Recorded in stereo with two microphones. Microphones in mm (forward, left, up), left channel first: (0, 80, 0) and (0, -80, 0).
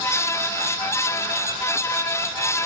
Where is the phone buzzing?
I don't hear a phone buzzing.